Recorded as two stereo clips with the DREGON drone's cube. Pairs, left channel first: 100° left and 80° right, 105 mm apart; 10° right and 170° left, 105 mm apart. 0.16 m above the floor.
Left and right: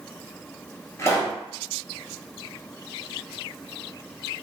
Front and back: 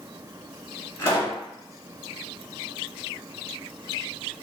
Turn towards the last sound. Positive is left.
turn(degrees=45)